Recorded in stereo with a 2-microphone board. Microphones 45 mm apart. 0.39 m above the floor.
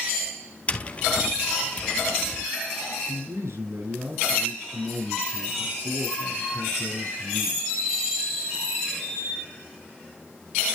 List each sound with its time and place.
0.7 s tapping: 30° left (ahead or behind), 1.6 m
3.1 s a man speaking: 80° right, 7.5 m